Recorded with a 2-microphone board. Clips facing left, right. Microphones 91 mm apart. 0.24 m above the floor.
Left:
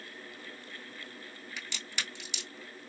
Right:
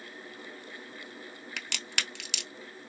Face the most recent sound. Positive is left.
turn(degrees=-70)  # may be behind; listen again after turning